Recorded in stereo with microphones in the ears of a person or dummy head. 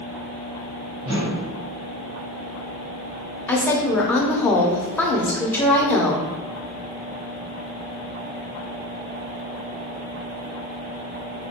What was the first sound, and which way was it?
A whoosh, 30° right (ahead or behind).